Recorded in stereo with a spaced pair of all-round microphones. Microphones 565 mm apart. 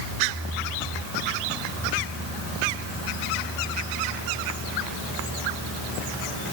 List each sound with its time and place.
Only background noise.